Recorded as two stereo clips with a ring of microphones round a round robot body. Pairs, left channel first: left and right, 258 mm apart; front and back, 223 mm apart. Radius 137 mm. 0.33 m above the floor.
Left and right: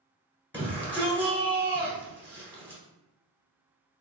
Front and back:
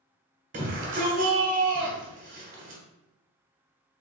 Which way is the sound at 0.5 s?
170° left.